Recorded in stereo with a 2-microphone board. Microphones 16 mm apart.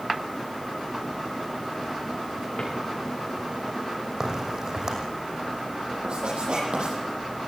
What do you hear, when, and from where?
2.6 s a drawer: 65° left (ahead or behind), 7.5 m
4.2 s a crack: 40° right (ahead or behind), 6 m
6.0 s writing: 80° right, 9 m